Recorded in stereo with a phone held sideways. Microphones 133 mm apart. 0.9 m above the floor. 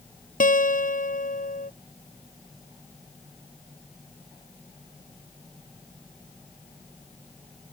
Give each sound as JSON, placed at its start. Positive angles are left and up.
{"t": 0.4, "sound": "a guitar", "side_deg": 85}